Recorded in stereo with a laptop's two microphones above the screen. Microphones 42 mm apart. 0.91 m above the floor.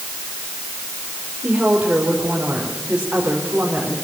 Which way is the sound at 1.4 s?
45° right (ahead or behind).